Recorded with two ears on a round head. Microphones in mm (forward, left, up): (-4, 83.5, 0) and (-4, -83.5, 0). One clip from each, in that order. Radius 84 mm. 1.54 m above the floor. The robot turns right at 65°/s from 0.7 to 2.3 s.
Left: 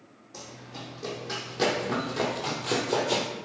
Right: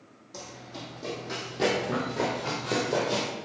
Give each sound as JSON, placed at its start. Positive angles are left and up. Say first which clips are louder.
{"t": 0.3, "sound": "running footsteps", "louder": "right 1 dB", "side_deg": -15, "distance_m": 3.5}